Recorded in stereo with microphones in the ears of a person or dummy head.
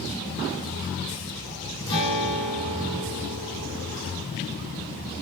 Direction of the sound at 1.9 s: 30° left (ahead or behind).